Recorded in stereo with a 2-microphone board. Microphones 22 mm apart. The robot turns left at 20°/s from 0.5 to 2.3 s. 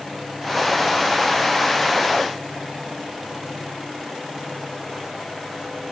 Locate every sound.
Only background noise.